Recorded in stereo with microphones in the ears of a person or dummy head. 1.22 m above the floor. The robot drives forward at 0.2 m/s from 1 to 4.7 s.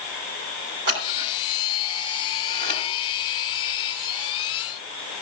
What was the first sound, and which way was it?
Scissors, 65° right (ahead or behind).